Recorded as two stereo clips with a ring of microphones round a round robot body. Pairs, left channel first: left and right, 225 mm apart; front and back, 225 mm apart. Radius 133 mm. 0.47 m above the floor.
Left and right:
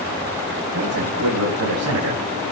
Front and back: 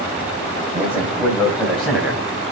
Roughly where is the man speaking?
Right.